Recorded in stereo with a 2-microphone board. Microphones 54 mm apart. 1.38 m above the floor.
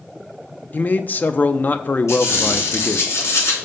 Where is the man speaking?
35° left (ahead or behind), 0.6 m.